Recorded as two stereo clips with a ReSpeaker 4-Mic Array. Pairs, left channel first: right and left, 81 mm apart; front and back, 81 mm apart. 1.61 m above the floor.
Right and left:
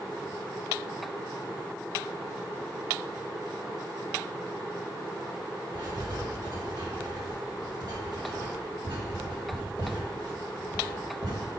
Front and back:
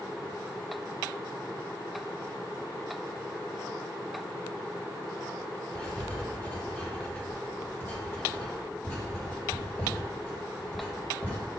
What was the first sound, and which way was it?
Writing, 65° left.